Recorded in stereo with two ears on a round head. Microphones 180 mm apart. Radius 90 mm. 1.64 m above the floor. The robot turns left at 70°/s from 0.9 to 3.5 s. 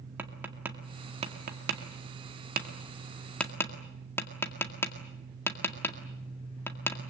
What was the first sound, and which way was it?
Tapping, 10° right (ahead or behind).